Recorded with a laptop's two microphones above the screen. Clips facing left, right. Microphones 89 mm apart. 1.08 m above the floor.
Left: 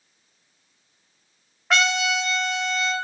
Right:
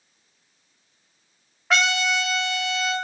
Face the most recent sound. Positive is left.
turn(degrees=0)  # may be behind; listen again after turning